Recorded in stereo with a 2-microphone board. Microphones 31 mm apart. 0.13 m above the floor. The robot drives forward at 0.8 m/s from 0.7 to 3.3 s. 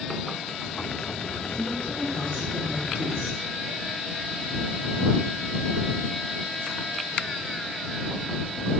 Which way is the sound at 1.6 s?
30° right (ahead or behind).